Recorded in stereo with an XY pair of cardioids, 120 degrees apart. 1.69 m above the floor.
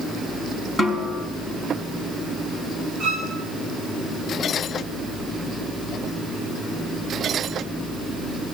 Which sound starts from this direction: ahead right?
A violin, at 3.0 s.